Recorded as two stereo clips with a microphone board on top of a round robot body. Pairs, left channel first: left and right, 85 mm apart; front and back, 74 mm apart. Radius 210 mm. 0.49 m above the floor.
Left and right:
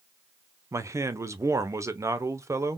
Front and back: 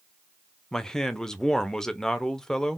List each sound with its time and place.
0.7 s a man speaking: 75° right, 0.8 m